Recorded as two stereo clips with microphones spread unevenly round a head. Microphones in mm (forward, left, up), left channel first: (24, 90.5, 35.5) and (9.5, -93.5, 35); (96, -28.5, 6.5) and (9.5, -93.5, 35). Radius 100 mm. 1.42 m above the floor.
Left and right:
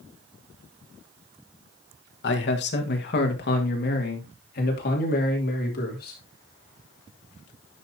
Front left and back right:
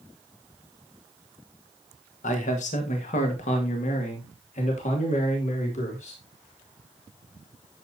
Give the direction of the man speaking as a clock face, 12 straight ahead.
10 o'clock.